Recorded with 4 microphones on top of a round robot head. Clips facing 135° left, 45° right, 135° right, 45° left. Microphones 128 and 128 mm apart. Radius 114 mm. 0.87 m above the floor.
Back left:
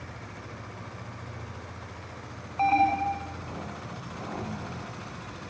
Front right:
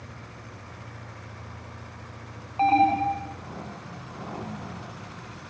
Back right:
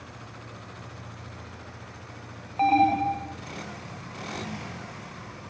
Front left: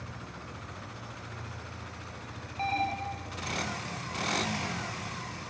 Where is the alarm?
110° right.